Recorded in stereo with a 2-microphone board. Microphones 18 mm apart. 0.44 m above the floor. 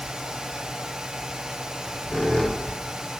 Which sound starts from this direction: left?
A squeak, at 1.6 s.